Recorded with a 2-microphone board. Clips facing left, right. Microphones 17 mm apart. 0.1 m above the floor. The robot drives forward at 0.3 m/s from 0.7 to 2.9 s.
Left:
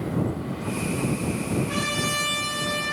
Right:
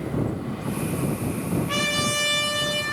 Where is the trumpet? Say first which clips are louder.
Right 2 dB; 50° right (ahead or behind), 0.6 m; by 2.8 s 60° right (ahead or behind), 0.5 m.